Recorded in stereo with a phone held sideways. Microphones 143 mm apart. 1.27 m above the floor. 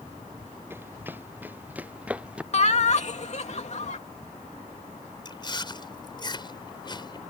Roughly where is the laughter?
Left.